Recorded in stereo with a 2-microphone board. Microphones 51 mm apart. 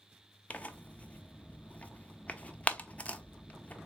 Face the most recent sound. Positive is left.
turn(degrees=25)  # may be behind; listen again after turning